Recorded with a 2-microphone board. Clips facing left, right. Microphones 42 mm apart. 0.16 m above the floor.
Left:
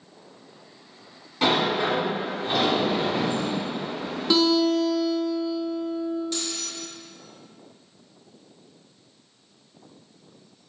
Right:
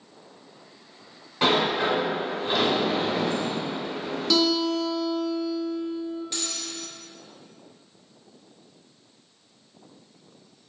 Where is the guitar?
20° left (ahead or behind), 0.7 m.